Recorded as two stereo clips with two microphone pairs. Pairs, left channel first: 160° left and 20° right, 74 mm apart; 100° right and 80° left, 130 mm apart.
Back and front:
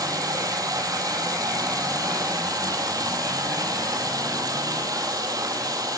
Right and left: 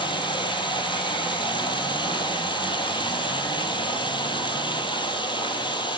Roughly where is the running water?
Ahead right.